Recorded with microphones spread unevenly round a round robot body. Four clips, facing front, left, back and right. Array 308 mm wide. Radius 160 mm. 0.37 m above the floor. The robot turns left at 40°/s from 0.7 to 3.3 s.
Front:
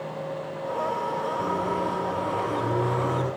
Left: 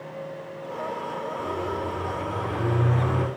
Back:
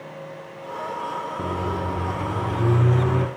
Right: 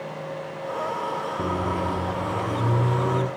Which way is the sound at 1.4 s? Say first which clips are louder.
Right 3 dB, even; 125° right.